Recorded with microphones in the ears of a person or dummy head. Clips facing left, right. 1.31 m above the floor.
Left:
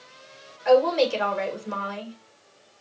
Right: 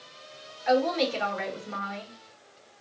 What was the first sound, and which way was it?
A woman speaking, 75° left (ahead or behind).